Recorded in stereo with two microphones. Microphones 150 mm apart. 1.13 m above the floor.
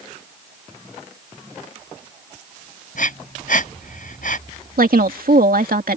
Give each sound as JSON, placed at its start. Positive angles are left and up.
{"t": 3.0, "sound": "breathing", "side_deg": 65}
{"t": 4.8, "sound": "a woman speaking", "side_deg": -75}